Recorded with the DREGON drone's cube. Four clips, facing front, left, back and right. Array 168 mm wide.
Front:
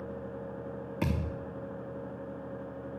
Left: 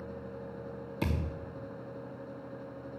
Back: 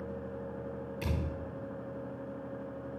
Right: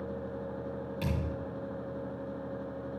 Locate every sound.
1.0 s a thud: 30° left, 4 m